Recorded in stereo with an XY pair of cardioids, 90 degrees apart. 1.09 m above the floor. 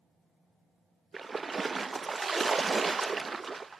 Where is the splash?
30° right, 0.7 m.